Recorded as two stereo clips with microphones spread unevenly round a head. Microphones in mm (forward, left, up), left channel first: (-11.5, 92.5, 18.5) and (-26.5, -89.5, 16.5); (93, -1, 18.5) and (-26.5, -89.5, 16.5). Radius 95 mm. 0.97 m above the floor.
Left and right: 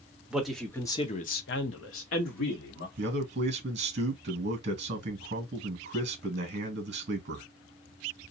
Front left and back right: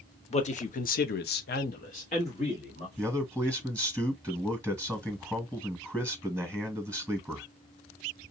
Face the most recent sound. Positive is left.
turn(degrees=-45)